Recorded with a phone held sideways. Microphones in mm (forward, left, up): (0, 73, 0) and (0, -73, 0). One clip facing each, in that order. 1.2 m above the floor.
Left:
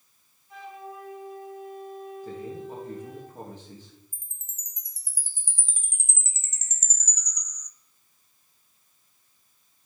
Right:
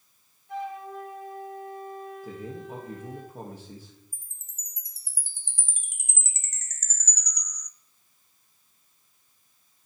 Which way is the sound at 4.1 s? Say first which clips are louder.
Even; 65° right (ahead or behind).